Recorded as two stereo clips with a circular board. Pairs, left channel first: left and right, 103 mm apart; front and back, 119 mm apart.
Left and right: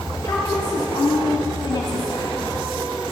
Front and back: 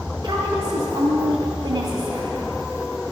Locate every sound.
0.2 s a woman speaking: 145° left, 2 m